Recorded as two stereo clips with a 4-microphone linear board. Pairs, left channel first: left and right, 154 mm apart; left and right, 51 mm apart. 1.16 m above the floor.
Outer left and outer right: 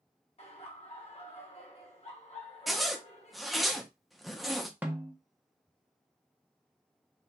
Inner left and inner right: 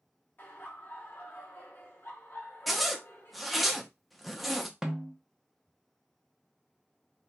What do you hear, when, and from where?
0.4 s laughter: 45° left (ahead or behind), 1.0 m
2.7 s a zipper: centre (ahead or behind), 0.5 m
4.8 s a snare drum: 10° right (ahead or behind), 0.5 m